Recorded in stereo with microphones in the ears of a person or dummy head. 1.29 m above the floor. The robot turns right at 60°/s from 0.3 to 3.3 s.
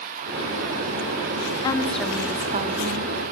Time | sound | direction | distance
1.6 | a woman speaking | 160° left | 0.7 m